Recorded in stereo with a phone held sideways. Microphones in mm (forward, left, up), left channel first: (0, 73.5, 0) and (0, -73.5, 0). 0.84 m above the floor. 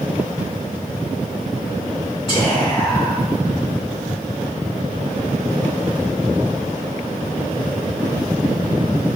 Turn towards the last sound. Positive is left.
turn(degrees=20)  # may be behind; listen again after turning